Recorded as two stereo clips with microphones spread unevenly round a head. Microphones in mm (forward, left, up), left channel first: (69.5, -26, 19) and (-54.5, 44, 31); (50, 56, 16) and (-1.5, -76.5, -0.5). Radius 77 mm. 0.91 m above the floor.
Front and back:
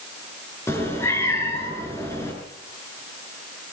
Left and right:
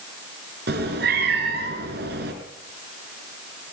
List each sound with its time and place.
0.7 s a cat meowing: 105° right, 5 m